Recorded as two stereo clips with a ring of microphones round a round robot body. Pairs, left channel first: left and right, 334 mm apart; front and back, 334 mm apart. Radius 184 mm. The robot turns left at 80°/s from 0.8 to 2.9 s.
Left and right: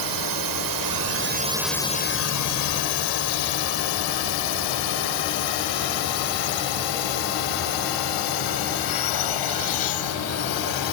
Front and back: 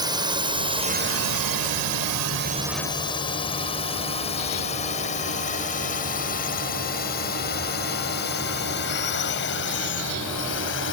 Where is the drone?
105° right; by 10.9 s 60° left.